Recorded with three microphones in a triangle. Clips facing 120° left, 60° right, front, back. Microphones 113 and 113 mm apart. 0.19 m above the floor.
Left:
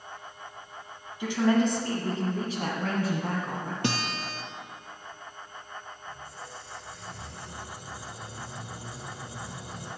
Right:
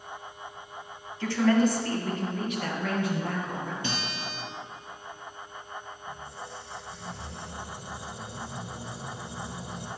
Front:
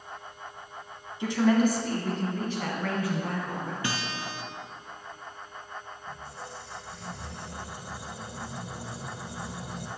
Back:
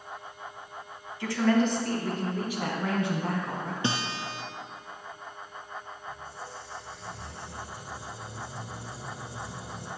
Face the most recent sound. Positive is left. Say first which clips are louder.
# right 3 dB, even
turn(degrees=5)